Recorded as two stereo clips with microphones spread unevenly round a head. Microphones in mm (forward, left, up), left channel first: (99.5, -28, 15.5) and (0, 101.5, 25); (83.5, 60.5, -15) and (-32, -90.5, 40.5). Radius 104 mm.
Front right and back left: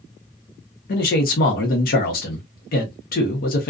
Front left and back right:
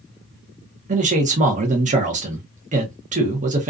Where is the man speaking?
65° right, 0.8 m.